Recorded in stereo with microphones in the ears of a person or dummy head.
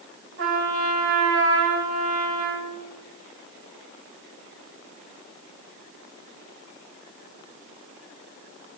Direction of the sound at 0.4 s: 60° right (ahead or behind).